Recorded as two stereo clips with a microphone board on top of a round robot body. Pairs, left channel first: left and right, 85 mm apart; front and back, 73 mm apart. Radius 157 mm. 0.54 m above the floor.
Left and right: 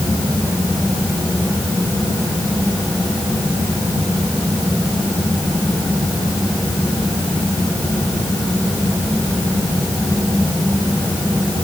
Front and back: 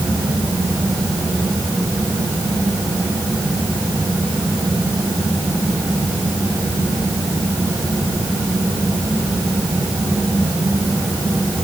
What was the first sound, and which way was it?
Only background noise.